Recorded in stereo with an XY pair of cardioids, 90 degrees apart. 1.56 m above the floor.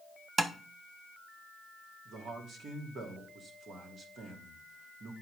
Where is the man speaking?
65° right, 2.5 m.